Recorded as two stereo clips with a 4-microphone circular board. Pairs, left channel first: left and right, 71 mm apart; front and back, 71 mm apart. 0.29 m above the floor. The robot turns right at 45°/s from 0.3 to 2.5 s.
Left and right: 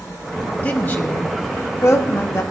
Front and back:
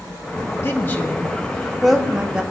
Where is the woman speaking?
35° left, 1.6 m; by 2.4 s 115° left, 1.6 m.